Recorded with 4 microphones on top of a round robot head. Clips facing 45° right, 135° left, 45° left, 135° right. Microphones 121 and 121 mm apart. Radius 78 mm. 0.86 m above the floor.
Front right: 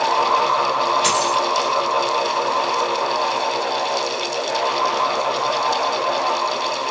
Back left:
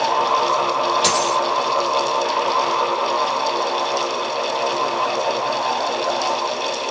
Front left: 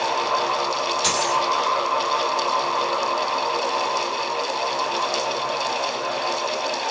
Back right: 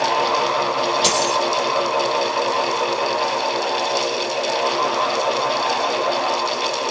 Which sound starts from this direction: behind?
A dropped coin, at 1.0 s.